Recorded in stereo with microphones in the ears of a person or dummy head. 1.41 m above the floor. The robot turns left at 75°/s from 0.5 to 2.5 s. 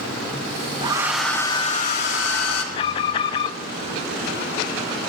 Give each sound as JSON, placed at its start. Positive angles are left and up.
{"t": 0.8, "sound": "a hair dryer", "azimuth_deg": -150, "distance_m": 3.0}
{"t": 2.7, "sound": "an alarm", "side_deg": 30, "distance_m": 0.7}